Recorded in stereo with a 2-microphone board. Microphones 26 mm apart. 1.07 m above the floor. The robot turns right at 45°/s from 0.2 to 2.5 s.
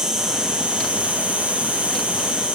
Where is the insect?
150° right, 0.8 m; by 2.5 s 45° right, 0.8 m.